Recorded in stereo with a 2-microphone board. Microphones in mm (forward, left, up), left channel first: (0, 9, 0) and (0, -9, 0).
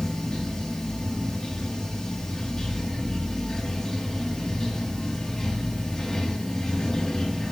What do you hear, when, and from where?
0.0 s running water: 30° left (ahead or behind), 3 m